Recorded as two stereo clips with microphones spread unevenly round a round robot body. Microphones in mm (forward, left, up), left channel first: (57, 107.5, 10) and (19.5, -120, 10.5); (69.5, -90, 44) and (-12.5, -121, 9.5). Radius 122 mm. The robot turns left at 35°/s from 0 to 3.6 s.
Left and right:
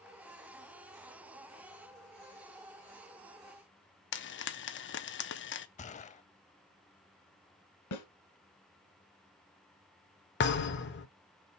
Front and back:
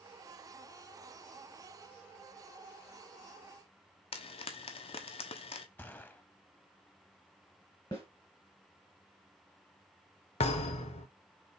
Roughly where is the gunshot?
Ahead left.